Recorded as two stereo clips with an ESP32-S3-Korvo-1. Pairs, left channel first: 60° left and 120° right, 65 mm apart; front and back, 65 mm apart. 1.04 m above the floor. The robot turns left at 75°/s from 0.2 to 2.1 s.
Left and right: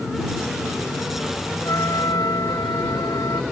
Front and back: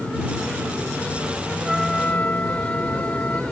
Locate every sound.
1.6 s a trumpet: 95° left; by 3.4 s 60° left